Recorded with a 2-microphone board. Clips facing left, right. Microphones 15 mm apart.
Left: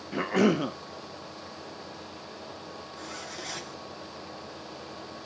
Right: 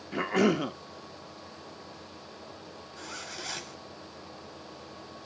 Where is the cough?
10° right (ahead or behind), 0.7 m.